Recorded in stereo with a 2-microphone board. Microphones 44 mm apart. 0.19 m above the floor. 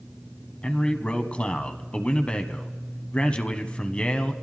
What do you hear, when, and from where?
0.6 s a man speaking: 25° left (ahead or behind), 1.1 m